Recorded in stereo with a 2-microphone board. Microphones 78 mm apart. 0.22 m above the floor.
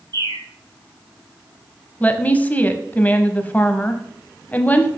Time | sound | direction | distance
0.1 | a bird | 55° right (ahead or behind) | 1.6 m
2.0 | a woman speaking | 20° left (ahead or behind) | 1.0 m